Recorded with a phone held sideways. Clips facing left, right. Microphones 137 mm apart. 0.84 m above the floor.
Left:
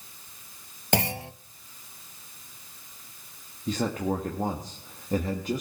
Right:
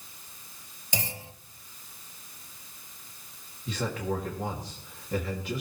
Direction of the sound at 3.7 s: 45° left (ahead or behind).